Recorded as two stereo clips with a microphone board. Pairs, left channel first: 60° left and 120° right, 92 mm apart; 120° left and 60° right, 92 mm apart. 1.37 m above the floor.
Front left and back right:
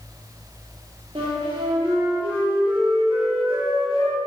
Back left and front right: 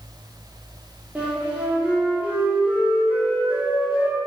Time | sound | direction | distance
1.1 | a flute | 135° right | 3 m